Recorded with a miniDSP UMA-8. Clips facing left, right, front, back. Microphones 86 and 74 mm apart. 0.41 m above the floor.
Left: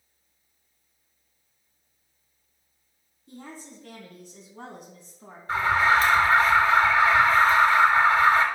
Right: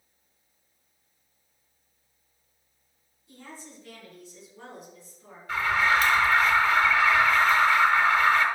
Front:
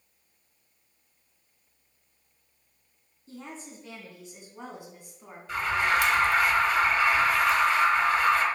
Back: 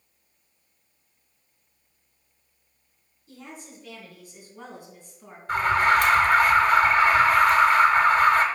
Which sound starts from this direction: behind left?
An alarm, at 5.5 s.